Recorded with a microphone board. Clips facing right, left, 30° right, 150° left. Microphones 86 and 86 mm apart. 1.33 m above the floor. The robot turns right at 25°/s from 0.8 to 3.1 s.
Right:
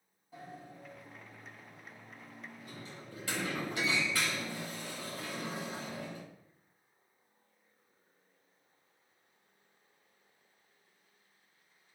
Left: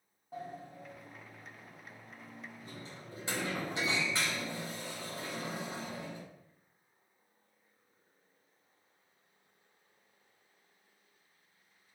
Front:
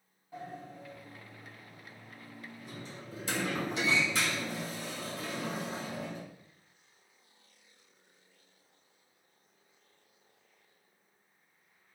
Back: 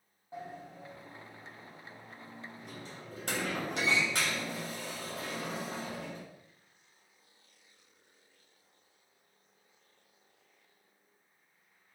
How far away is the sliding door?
About 1.7 m.